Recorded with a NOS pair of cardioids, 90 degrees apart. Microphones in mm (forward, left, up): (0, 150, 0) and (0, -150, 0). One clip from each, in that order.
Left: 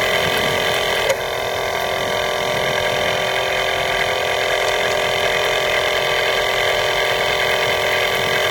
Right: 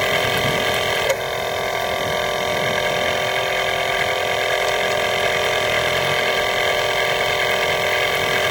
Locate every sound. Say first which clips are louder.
0.0 s a machine running: left 1 dB; 15° left